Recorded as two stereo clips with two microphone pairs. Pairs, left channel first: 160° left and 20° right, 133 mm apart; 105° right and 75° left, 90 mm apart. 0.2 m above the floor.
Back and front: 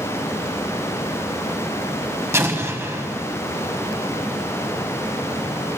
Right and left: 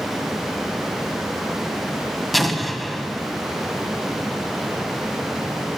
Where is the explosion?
15° right, 1.3 m.